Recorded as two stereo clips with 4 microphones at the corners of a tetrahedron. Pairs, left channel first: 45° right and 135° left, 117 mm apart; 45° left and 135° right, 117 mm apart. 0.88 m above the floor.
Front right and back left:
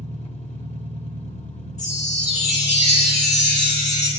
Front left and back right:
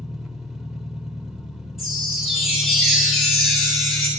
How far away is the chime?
About 8.5 m.